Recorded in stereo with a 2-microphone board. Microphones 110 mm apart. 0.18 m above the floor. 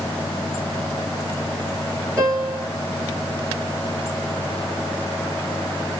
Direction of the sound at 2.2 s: 25° right (ahead or behind).